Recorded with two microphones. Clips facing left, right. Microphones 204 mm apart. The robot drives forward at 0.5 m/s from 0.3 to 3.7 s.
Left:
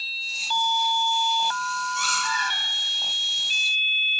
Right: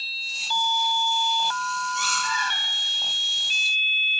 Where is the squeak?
35° right (ahead or behind), 1.3 m; by 2.6 s 30° right (ahead or behind), 1.6 m.